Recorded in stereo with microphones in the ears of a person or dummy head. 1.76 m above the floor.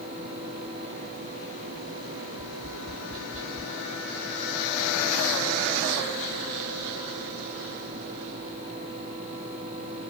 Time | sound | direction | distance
2.4 | tapping | 75° right (ahead or behind) | 5.5 m